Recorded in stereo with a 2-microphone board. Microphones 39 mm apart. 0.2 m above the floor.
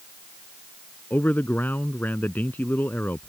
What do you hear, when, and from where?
1.1 s a man speaking: 55° left (ahead or behind)